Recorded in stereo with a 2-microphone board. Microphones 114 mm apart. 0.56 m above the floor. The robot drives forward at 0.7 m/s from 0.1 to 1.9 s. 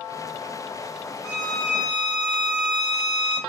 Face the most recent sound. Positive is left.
turn(degrees=20)  # may be behind; listen again after turning